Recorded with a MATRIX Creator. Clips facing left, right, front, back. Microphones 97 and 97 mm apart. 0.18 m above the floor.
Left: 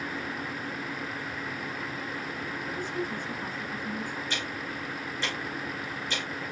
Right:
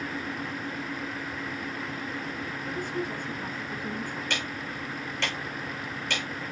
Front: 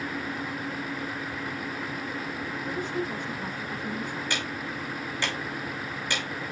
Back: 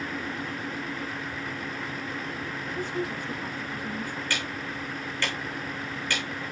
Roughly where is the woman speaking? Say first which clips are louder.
Right 2 dB, even; ahead right.